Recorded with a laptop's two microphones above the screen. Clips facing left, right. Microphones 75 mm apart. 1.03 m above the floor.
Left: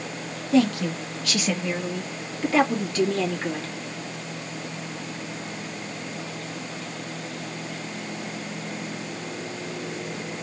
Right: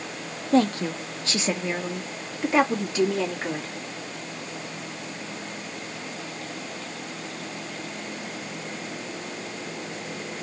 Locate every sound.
0.5 s a woman speaking: 40° right (ahead or behind), 0.9 m; by 3.7 s 15° right (ahead or behind), 2.5 m